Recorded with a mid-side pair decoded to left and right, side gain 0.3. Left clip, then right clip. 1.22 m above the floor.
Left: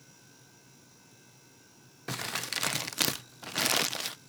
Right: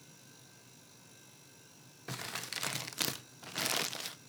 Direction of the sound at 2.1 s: 55° left.